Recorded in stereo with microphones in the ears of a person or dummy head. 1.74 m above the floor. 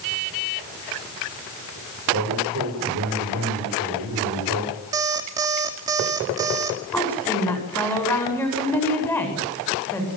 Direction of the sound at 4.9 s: 20° right (ahead or behind).